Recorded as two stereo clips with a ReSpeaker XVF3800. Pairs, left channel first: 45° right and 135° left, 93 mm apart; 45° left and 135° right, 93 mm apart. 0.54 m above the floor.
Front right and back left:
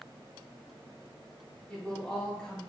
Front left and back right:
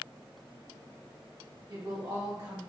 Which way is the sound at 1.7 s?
120° right.